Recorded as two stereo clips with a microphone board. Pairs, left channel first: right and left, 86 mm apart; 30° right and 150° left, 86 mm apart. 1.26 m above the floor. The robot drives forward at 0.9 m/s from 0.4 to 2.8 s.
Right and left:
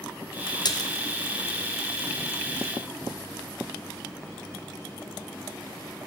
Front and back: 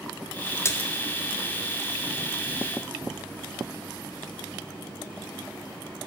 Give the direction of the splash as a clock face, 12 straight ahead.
3 o'clock.